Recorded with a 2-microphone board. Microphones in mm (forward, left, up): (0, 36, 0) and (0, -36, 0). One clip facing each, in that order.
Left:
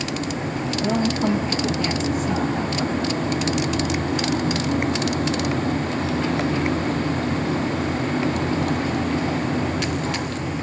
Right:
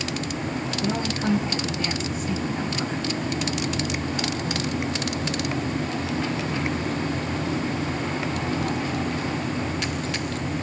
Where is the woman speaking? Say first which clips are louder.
Left 6 dB; 40° left (ahead or behind), 6 m.